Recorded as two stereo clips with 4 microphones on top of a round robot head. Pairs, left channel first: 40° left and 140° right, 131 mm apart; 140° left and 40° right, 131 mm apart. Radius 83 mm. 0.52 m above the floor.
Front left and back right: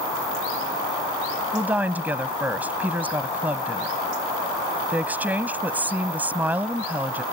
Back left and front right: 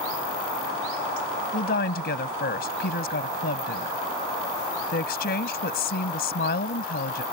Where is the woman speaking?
145° left.